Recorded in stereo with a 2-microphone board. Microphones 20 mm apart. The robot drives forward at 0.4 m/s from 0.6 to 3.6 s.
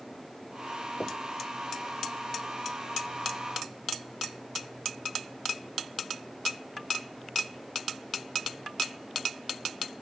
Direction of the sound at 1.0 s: 65° left (ahead or behind).